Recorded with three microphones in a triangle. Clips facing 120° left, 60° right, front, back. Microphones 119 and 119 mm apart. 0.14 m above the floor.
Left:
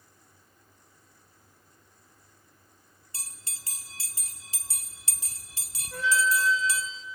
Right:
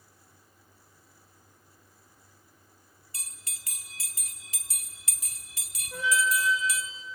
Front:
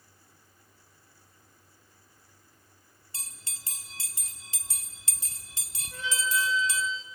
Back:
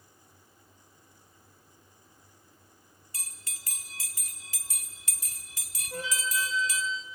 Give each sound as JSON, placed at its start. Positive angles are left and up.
{"t": 3.1, "sound": "a bell", "azimuth_deg": 65, "distance_m": 0.7}
{"t": 5.9, "sound": "a flute", "azimuth_deg": -140, "distance_m": 2.0}